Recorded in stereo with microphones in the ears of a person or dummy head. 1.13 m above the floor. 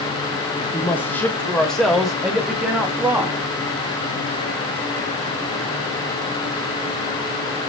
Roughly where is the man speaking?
Centre.